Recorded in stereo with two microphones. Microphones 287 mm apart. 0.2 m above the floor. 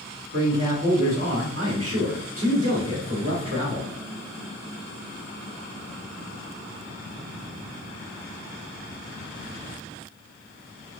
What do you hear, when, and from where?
0.3 s a man speaking: 50° right (ahead or behind), 1.8 m